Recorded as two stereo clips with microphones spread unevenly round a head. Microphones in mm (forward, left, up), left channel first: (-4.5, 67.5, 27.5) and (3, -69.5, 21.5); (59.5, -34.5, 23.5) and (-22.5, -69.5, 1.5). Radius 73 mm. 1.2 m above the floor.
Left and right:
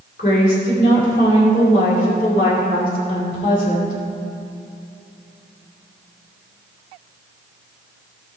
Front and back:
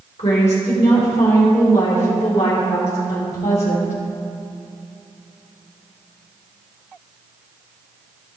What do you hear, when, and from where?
0.2 s a woman speaking: 65° left, 3.5 m